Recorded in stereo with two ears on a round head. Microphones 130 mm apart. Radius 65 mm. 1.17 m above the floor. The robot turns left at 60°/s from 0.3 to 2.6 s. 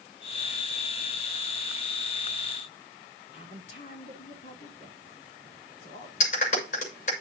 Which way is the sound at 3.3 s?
50° left (ahead or behind).